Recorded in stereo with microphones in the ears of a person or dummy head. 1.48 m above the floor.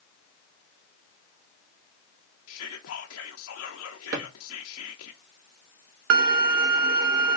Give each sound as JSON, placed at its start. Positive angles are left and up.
{"t": 2.5, "sound": "whispering", "side_deg": 85, "distance_m": 0.5}
{"t": 4.1, "sound": "a drawer", "side_deg": -55, "distance_m": 1.2}
{"t": 6.1, "sound": "a violin", "side_deg": -60, "distance_m": 0.6}